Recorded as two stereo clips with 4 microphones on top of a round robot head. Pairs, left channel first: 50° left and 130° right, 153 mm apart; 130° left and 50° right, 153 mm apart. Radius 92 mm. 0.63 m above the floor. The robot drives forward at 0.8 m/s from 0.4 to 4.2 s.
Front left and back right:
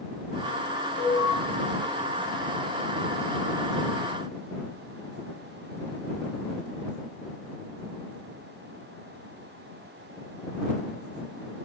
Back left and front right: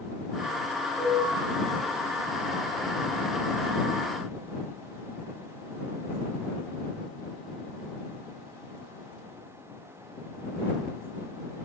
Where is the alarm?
30° left, 7.5 m; by 1.3 s 35° left, 7.5 m.